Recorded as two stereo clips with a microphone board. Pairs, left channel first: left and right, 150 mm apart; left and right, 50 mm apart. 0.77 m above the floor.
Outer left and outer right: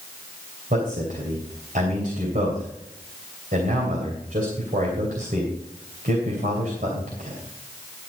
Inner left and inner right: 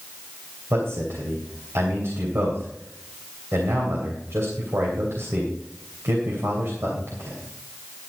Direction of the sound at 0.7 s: 70° right (ahead or behind).